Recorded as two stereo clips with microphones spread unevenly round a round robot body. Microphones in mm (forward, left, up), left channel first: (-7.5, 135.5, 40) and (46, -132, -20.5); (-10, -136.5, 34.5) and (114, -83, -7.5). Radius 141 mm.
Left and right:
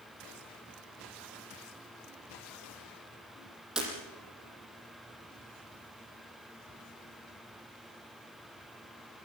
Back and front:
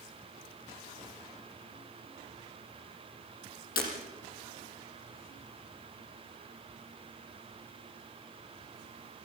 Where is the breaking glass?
165° right, 5.5 m.